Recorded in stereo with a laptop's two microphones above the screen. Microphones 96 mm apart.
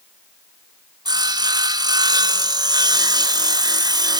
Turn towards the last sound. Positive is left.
turn(degrees=-45)  # may be behind; listen again after turning